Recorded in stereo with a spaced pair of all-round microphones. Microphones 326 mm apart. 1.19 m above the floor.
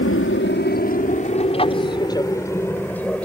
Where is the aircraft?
40° left (ahead or behind); by 3.2 s 5° left (ahead or behind).